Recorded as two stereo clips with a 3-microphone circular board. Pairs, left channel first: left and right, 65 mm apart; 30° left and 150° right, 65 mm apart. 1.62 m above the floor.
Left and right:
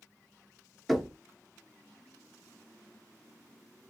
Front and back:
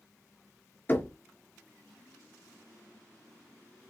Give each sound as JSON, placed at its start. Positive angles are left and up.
{"t": 0.9, "sound": "knocking", "azimuth_deg": 0, "distance_m": 0.6}